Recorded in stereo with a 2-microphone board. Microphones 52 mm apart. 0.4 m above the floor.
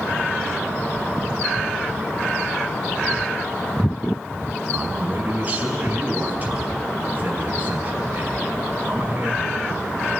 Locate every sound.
4.7 s a man speaking: 35° right (ahead or behind), 5.5 m